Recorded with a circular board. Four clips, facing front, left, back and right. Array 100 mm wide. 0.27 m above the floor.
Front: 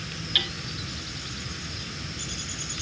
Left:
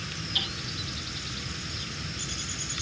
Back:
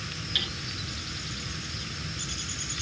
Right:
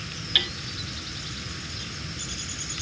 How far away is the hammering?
About 1.6 m.